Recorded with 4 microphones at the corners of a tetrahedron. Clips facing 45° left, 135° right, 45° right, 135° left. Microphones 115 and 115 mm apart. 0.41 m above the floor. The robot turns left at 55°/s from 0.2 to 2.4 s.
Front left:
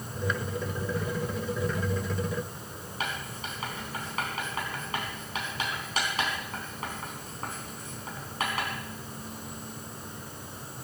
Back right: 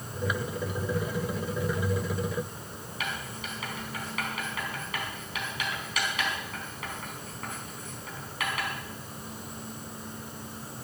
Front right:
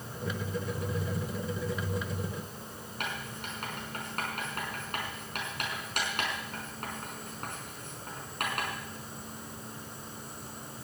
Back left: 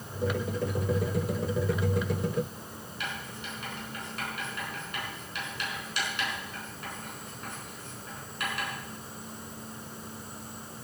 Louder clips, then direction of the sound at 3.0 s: Front left 1 dB, front right 1 dB; 10° right.